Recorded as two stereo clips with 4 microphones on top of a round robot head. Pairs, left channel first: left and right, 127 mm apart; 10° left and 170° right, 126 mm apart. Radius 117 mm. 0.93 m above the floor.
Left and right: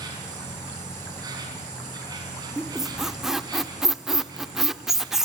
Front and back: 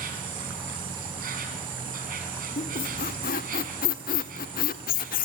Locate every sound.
0.0 s an insect: 155° right, 5 m
2.6 s a squeak: 5° right, 0.8 m